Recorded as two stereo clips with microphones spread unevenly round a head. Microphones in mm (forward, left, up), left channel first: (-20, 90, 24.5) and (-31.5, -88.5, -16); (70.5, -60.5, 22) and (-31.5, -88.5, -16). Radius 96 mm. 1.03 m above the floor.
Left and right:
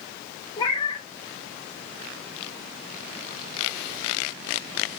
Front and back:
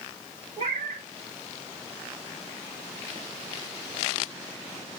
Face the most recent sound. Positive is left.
turn(degrees=130)